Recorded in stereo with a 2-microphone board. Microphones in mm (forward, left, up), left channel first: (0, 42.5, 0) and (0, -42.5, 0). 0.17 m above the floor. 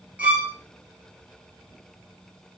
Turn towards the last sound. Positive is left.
turn(degrees=-20)  # may be behind; listen again after turning